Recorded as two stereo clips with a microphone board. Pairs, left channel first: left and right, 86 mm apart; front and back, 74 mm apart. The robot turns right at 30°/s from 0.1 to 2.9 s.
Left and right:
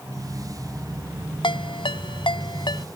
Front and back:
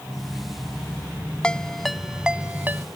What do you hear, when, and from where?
1.4 s a ringtone: 75° left; by 2.9 s 120° left